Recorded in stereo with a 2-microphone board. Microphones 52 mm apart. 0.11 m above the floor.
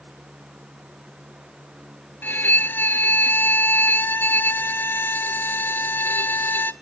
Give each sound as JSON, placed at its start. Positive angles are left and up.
{"t": 2.2, "sound": "a violin", "side_deg": 40, "distance_m": 0.6}